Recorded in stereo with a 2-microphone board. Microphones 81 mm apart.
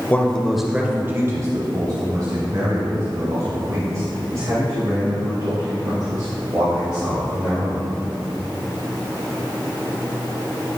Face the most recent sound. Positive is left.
turn(degrees=-80)